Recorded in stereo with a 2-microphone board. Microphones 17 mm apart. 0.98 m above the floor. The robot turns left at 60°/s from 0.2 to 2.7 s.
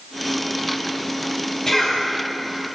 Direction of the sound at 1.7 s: 35° left (ahead or behind).